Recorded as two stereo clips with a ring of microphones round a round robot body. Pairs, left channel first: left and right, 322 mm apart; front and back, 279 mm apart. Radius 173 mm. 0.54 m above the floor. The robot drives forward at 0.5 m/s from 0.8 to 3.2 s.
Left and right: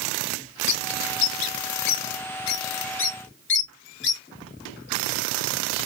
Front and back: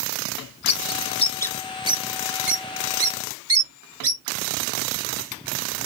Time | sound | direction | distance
0.7 | a bird | 55° left | 0.7 m